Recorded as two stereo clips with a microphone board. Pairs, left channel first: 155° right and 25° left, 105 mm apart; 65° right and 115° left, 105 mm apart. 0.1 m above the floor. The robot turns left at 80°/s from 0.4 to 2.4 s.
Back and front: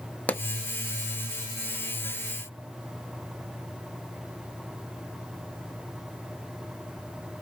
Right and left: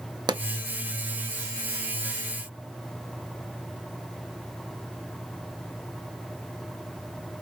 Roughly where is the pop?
Behind left.